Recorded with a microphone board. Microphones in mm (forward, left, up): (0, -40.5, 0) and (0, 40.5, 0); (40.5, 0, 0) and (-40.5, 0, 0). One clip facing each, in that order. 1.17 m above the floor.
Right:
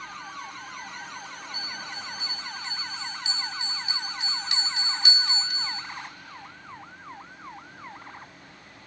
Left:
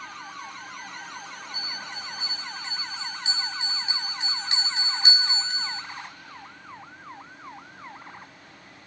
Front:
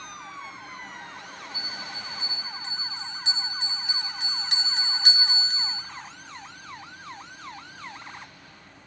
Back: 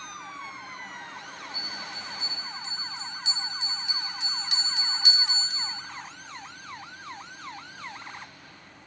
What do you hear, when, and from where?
1.5 s a bell: 35° left, 3 m